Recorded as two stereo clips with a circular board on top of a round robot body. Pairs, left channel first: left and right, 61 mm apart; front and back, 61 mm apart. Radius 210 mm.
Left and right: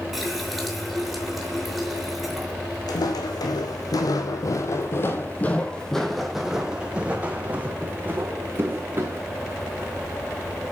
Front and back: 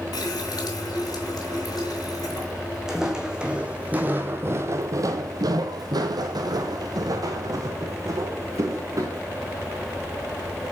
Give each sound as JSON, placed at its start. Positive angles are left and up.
{"t": 0.1, "sound": "a running tap", "azimuth_deg": 0, "distance_m": 6.0}
{"t": 2.9, "sound": "footsteps", "azimuth_deg": 95, "distance_m": 1.8}